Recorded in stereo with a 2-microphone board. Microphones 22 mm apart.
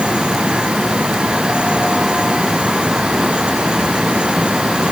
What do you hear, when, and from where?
Only background noise.